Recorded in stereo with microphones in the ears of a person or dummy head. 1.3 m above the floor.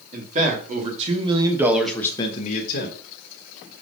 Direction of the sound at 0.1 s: 50° right (ahead or behind).